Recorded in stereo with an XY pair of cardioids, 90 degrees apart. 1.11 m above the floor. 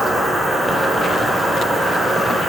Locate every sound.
0.0 s an insect: 20° right, 3 m